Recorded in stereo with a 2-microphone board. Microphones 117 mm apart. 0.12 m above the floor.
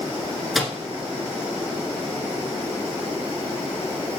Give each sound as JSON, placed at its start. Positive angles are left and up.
{"t": 0.6, "sound": "a microwave", "side_deg": 0, "distance_m": 1.1}